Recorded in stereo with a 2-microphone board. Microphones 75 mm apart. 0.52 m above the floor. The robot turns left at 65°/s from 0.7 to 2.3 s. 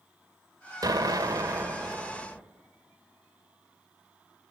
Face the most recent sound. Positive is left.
turn(degrees=-170)